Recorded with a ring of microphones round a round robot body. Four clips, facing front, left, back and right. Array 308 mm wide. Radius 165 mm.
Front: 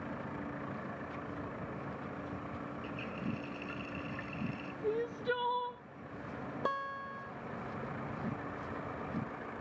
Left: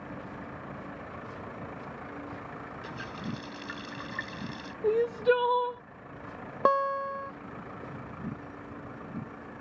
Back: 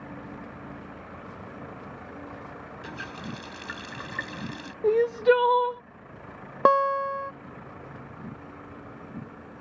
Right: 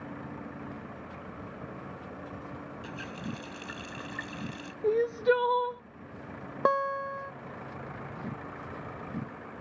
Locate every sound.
2.8 s a running tap: 175° left
4.8 s crying: 175° right
6.7 s a guitar: straight behind